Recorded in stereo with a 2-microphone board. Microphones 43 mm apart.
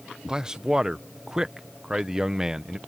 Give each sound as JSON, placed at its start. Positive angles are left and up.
{"t": 0.3, "sound": "a man speaking", "side_deg": -20}